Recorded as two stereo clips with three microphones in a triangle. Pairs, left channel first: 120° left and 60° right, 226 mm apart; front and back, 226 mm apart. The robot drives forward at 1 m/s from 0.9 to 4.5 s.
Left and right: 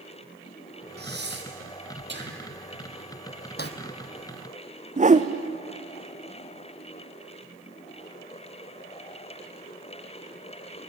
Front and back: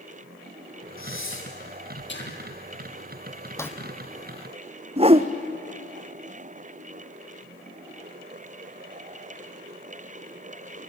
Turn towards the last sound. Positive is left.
turn(degrees=-115)